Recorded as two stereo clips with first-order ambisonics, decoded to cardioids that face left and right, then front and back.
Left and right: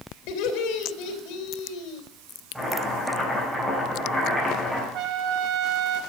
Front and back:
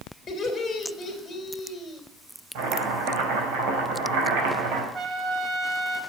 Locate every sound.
0.3 s laughter: 80° left, 3 m
2.5 s chopping: 175° right, 4 m
4.9 s a trumpet: 120° right, 0.8 m